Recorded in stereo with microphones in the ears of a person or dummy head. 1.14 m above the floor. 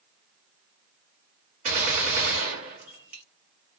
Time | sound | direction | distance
1.6 | a gunshot | 45° right (ahead or behind) | 1.2 m